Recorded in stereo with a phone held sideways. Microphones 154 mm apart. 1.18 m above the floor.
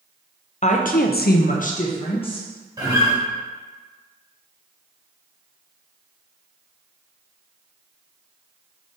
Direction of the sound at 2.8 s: 25° right (ahead or behind).